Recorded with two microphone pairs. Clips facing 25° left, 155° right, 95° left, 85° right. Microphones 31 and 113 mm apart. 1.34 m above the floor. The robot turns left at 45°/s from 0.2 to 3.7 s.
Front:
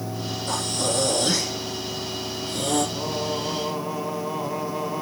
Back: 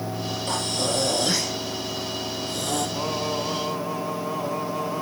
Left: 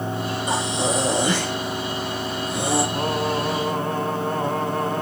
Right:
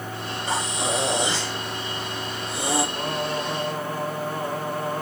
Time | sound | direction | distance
0.5 | breathing | 165° left | 4.5 m
2.9 | singing | 135° left | 3 m